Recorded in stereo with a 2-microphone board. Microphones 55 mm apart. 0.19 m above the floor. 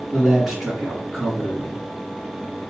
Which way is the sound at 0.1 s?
10° right (ahead or behind).